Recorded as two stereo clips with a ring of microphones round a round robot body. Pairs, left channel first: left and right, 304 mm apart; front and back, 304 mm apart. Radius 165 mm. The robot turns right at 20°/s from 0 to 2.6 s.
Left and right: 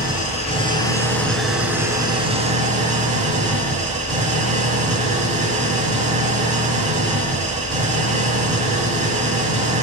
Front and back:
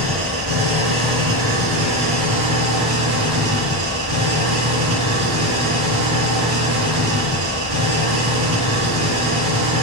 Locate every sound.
0.0 s an engine running: 150° left, 3 m; by 9.8 s 155° right, 3 m